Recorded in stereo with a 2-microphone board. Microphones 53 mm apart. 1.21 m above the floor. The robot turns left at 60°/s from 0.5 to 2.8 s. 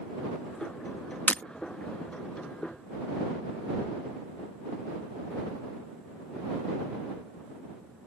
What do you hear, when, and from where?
1.3 s breaking glass: 35° left (ahead or behind); by 1.4 s 25° left (ahead or behind)